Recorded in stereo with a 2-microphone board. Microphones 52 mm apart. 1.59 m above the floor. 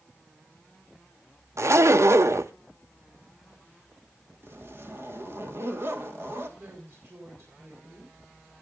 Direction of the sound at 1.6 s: 65° right (ahead or behind).